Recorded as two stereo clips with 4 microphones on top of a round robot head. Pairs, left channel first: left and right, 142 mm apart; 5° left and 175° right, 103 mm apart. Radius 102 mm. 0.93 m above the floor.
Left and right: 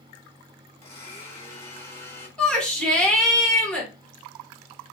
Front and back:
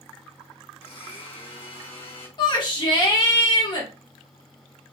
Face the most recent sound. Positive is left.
turn(degrees=10)